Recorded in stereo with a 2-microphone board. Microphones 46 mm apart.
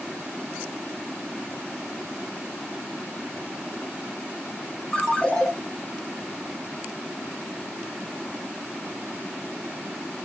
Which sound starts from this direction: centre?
A ringtone, at 4.9 s.